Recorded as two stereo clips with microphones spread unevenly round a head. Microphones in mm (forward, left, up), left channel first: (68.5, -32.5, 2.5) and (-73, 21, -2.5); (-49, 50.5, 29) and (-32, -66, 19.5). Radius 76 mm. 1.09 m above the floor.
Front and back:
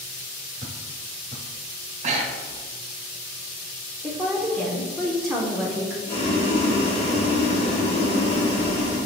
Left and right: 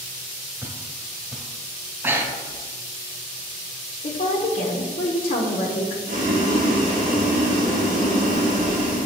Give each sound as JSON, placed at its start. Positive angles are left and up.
{"t": 0.6, "sound": "footsteps", "azimuth_deg": 180, "distance_m": 1.2}
{"t": 2.0, "sound": "breathing", "azimuth_deg": -155, "distance_m": 0.6}
{"t": 4.0, "sound": "a woman speaking", "azimuth_deg": 70, "distance_m": 0.6}
{"t": 6.1, "sound": "boiling", "azimuth_deg": -70, "distance_m": 1.0}